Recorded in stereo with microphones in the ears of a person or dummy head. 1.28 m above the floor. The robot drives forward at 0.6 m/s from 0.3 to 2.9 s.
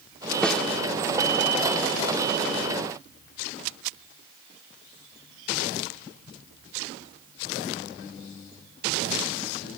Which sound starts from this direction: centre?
A snare drum, at 0.4 s.